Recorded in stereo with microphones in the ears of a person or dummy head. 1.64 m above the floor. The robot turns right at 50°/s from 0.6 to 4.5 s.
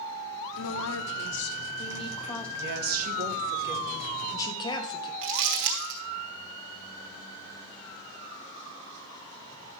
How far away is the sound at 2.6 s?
About 1.4 m.